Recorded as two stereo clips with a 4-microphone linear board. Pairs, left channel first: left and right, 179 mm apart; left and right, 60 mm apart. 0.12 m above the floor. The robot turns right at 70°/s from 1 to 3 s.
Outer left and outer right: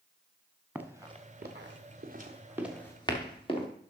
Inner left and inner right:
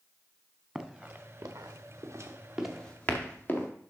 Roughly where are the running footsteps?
Centre.